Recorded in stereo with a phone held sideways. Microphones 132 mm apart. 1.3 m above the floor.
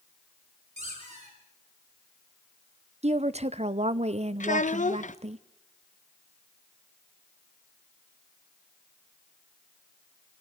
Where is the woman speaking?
55° right (ahead or behind), 0.7 m.